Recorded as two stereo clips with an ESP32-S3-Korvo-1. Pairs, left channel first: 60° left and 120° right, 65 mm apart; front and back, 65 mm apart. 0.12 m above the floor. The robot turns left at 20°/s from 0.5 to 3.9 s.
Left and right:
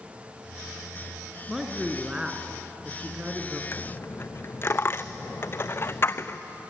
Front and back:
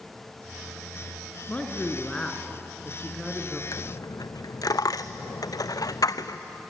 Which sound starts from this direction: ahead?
A dropped coin, at 3.7 s.